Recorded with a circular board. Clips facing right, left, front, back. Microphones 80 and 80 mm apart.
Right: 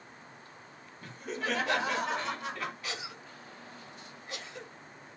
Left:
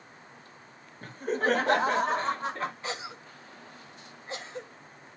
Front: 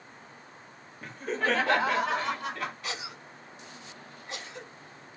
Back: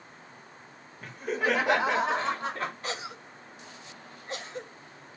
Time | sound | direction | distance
1.0 | laughter | 90° left | 1.8 m
2.8 | a cough | 140° left | 2.5 m